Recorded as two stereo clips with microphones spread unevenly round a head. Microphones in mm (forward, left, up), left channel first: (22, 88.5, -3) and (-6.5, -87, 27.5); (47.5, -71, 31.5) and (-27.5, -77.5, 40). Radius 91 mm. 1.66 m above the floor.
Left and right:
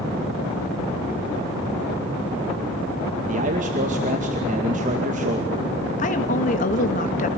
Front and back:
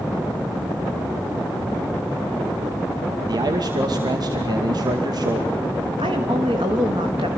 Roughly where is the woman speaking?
Behind left.